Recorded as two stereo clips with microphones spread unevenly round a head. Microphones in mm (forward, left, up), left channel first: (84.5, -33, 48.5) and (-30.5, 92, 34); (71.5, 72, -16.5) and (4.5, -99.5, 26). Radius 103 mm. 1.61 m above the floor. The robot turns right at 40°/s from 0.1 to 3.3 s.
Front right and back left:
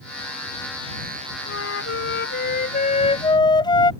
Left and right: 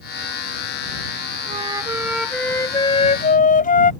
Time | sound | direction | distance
1.5 | a flute | 55° right | ?